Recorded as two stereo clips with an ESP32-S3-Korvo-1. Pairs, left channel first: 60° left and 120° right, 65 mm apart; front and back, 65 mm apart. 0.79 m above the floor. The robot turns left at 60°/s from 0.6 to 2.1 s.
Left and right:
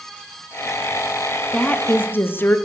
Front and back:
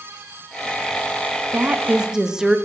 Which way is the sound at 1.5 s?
135° left.